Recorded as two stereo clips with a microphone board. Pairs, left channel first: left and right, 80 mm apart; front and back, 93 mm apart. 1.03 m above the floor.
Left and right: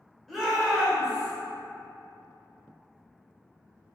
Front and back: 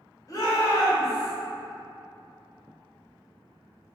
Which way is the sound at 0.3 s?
Straight ahead.